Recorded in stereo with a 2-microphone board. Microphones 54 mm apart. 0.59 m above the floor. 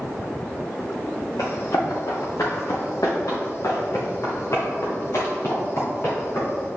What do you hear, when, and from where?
1.4 s running footsteps: 70° left (ahead or behind), 3 m; by 6.7 s 45° left (ahead or behind), 4.5 m